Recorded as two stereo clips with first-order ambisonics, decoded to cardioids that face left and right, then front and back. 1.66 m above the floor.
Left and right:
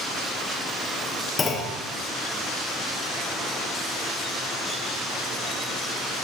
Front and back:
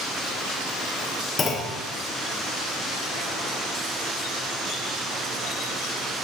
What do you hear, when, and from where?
1.4 s a clunk: 40° left, 0.7 m